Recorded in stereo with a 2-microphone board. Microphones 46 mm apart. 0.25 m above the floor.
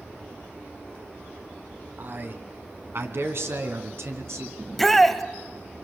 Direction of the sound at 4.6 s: Centre (ahead or behind).